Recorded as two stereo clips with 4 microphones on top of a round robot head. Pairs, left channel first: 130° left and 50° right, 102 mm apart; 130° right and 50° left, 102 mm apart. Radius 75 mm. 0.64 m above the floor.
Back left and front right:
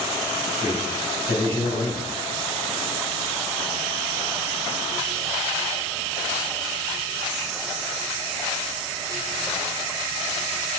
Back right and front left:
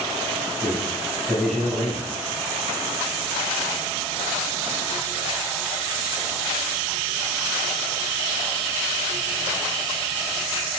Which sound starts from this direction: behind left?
A man speaking, at 0.6 s.